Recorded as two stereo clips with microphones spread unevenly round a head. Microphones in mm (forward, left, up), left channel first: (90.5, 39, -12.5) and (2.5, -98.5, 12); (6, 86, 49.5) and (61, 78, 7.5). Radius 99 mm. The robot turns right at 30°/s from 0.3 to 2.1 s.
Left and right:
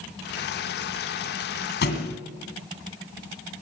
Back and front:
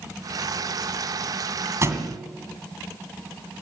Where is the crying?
No crying in this recording.